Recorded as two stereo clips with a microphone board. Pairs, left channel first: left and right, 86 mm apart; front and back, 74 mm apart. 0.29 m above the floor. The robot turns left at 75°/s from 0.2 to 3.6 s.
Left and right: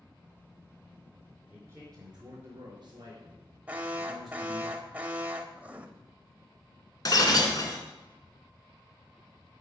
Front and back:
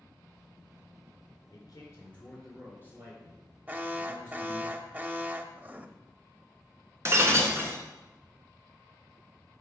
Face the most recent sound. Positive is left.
turn(degrees=130)